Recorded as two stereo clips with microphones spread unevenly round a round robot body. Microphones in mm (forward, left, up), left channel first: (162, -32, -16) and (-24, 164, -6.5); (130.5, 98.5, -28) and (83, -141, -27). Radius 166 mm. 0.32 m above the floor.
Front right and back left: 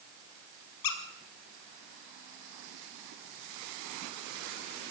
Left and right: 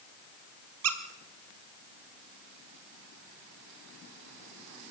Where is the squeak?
80° right, 1.9 m.